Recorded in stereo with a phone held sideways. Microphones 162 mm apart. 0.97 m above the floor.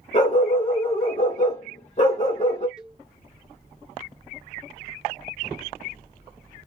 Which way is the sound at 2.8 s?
5° right (ahead or behind).